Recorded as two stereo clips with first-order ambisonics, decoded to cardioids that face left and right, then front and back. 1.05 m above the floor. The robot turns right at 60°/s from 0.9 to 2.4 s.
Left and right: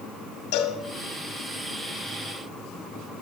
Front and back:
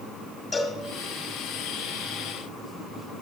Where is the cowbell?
70° left, 1.9 m.